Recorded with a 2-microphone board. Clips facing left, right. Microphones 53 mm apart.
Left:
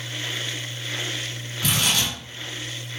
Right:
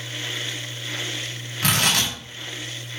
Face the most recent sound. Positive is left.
turn(degrees=-70)  # may be behind; listen again after turning